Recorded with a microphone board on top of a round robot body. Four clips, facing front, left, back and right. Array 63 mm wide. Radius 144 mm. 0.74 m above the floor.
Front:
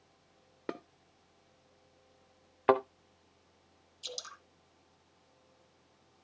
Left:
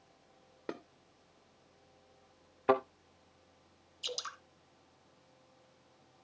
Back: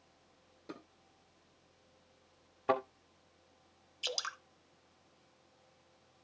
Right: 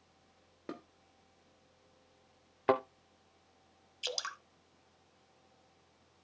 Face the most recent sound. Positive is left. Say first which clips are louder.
# right 2 dB, back 6 dB
turn(degrees=-130)